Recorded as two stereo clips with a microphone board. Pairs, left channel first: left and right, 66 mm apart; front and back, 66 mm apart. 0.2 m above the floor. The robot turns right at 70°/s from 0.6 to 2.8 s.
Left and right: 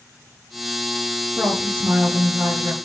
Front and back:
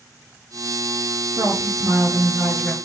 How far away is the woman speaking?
About 3 m.